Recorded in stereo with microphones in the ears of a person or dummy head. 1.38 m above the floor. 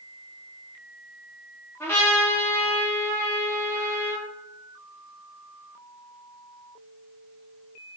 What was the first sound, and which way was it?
A trumpet, 10° left (ahead or behind).